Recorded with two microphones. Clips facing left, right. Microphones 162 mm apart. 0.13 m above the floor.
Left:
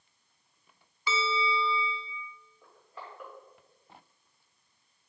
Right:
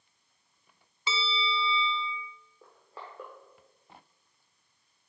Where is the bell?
25° right (ahead or behind), 0.5 m.